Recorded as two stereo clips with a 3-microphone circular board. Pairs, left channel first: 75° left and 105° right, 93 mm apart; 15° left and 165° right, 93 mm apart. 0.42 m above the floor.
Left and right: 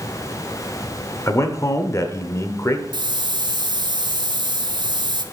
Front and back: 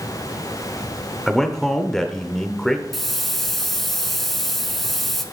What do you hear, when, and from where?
1.3 s a man speaking: 100° left, 0.9 m
2.9 s a hiss: 70° right, 0.7 m